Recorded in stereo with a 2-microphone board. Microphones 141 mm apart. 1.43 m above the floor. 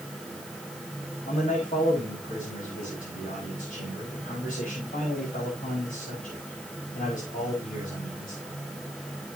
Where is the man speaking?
80° left, 5.5 m.